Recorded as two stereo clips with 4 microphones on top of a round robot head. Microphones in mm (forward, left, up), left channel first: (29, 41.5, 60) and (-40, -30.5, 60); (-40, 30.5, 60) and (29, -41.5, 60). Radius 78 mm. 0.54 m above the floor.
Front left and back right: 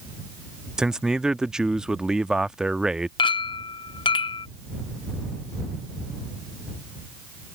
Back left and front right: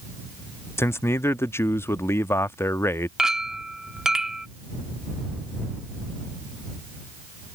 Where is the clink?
35° left.